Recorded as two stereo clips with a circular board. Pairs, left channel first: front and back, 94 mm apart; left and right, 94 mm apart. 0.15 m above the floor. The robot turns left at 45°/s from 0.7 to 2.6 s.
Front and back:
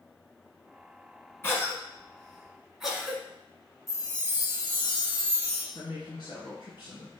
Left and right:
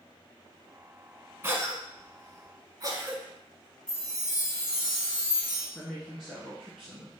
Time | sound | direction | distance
1.4 | a cough | 45° right | 1.3 m
3.9 | a chime | 15° right | 2 m
5.8 | a woman speaking | 5° right | 2 m